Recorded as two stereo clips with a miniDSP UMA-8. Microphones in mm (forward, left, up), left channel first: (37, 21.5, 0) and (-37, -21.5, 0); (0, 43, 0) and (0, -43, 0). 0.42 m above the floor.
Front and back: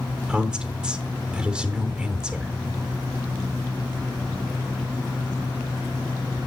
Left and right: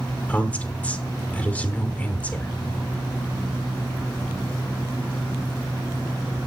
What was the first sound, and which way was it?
A woman speaking, 145° left.